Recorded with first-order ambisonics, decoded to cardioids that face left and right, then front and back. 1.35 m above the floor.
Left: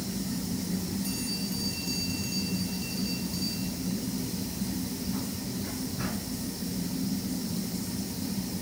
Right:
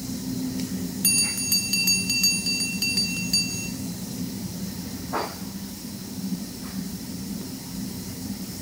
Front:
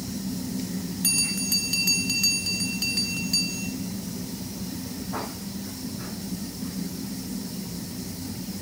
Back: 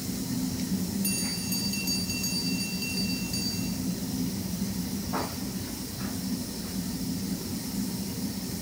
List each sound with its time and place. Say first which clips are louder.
1.0 s a bell: right 14 dB, front 10 dB; 60° right, 3.5 m